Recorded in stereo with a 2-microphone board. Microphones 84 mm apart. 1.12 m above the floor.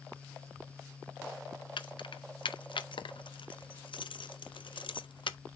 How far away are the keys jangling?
About 0.5 m.